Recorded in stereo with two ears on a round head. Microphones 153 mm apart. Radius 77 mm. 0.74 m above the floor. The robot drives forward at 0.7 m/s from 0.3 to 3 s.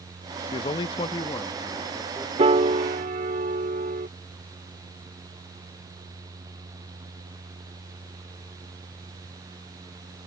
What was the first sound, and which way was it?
A man speaking, 25° left (ahead or behind).